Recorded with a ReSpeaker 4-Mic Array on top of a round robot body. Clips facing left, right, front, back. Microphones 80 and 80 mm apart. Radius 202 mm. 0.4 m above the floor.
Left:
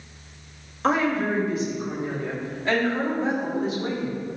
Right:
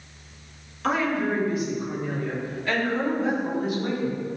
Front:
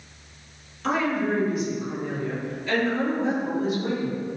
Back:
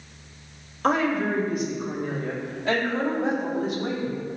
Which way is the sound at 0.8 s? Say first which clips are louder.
Left 2 dB, back 1 dB; 145° left.